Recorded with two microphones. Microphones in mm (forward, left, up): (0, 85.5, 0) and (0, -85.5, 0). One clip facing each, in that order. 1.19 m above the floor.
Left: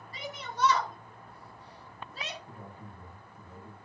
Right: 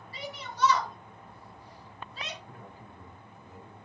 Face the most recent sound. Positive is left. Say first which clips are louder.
# left 1 dB
turn(degrees=35)  # may be behind; listen again after turning